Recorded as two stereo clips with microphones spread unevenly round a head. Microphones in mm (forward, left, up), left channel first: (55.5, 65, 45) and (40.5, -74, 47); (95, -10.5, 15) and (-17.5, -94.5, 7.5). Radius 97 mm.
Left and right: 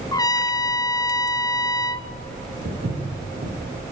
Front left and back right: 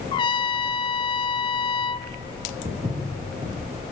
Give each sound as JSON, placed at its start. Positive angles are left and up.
{"t": 0.1, "sound": "a trumpet", "azimuth_deg": 55, "distance_m": 0.8}
{"t": 2.6, "sound": "footsteps", "azimuth_deg": -85, "distance_m": 10.0}